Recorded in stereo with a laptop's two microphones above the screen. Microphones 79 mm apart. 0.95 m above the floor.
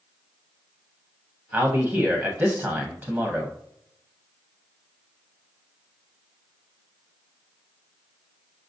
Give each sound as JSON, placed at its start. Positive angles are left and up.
{"t": 1.5, "sound": "a man speaking", "side_deg": -20, "distance_m": 0.6}